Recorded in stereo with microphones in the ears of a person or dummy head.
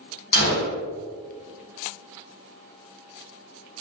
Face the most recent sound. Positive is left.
turn(degrees=60)  # may be behind; listen again after turning